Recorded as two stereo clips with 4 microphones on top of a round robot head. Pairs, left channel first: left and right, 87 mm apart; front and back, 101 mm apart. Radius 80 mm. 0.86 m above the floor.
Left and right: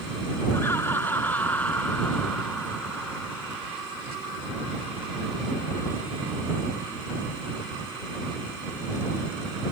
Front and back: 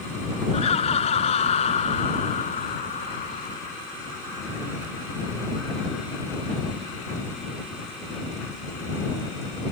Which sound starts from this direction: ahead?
Laughter, at 0.5 s.